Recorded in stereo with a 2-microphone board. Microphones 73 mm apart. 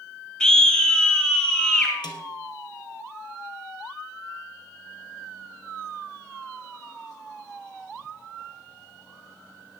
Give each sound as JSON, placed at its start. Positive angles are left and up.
{"t": 0.4, "sound": "a scream", "side_deg": 10, "distance_m": 1.4}
{"t": 2.0, "sound": "a snare drum", "side_deg": 80, "distance_m": 2.0}